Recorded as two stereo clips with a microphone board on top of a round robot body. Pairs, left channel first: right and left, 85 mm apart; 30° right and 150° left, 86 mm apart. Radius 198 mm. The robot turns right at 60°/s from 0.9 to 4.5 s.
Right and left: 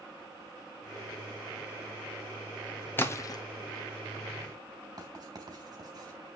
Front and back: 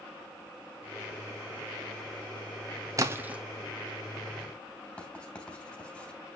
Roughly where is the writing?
Ahead left.